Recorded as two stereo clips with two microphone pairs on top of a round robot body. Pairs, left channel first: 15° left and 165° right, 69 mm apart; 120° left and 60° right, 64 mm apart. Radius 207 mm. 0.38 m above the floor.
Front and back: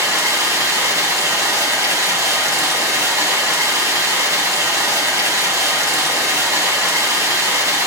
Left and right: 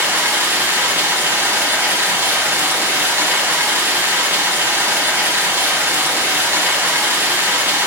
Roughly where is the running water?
Behind right.